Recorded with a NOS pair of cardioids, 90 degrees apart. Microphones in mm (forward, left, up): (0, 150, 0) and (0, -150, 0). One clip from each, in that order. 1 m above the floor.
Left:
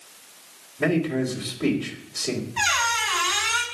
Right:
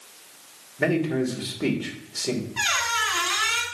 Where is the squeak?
5° right, 2 m.